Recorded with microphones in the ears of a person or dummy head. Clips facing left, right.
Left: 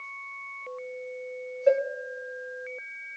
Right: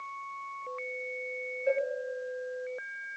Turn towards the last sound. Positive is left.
turn(degrees=65)  # may be behind; listen again after turning